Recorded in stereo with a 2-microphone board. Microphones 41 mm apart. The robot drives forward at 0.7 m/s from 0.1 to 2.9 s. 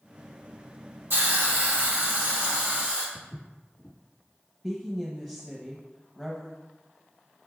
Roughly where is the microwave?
I don't hear a microwave.